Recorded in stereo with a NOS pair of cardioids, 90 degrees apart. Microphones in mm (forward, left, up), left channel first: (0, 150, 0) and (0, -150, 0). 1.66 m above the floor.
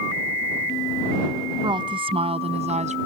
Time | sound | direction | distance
1.6 | a woman speaking | 15° right | ?